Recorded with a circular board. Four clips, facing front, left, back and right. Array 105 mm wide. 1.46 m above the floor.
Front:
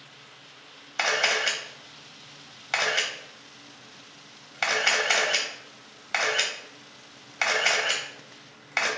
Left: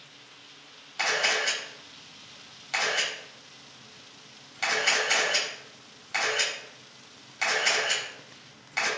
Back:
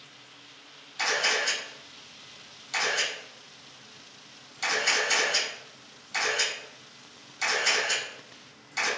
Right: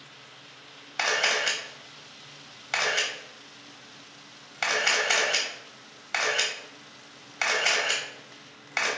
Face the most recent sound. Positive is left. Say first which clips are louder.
# right 1 dB, front 2 dB
turn(degrees=-25)